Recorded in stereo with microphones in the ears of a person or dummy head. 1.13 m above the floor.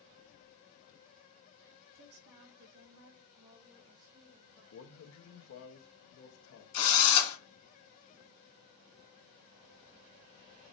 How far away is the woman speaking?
About 1.3 m.